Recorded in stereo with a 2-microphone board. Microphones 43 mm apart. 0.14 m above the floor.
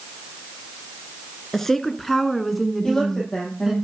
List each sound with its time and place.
1.5 s a woman speaking: 10° left (ahead or behind), 2.5 m; by 3.8 s 10° right (ahead or behind), 2 m
2.8 s a woman speaking: 15° left (ahead or behind), 6 m